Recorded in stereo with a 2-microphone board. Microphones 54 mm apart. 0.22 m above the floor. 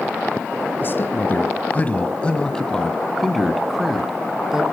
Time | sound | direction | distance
0.8 | a man speaking | 40° left (ahead or behind) | 1.6 m